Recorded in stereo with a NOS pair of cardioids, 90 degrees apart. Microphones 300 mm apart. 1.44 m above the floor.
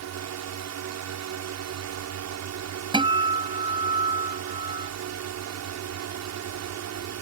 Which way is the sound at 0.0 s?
65° right.